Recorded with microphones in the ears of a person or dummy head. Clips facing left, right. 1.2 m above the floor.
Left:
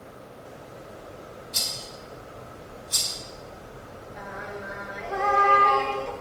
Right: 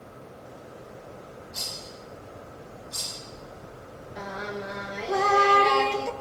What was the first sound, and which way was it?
A rattle, 45° left (ahead or behind).